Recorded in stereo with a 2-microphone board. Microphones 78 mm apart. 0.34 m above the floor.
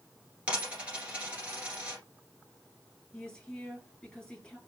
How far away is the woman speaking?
About 2.5 m.